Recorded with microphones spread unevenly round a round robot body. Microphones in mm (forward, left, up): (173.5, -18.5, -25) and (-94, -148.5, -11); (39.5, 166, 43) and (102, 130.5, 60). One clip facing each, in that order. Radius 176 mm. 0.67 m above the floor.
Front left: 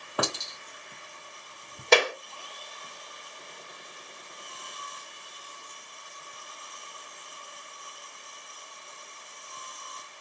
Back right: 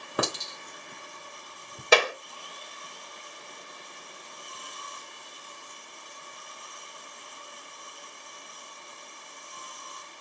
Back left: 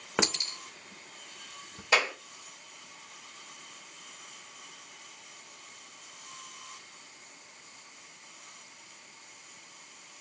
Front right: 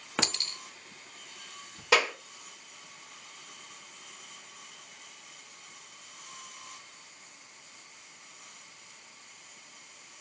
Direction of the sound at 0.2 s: 150° left.